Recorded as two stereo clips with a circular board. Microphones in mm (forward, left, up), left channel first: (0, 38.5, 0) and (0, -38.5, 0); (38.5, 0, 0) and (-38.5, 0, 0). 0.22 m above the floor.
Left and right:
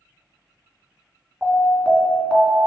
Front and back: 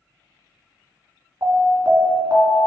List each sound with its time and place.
1.4 s an alarm: straight behind, 2 m